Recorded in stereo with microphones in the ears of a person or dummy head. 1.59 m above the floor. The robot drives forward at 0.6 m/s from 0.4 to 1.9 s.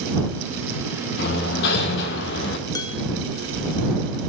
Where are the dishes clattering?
25° left (ahead or behind), 1.1 m.